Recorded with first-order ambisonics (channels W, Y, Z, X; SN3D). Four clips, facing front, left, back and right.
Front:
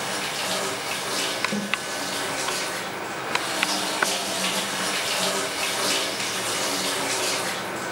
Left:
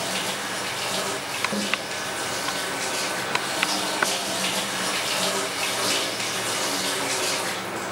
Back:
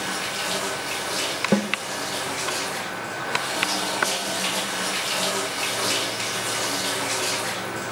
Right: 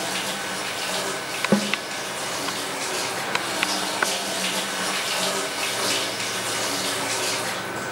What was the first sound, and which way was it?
A snare drum, 130° right.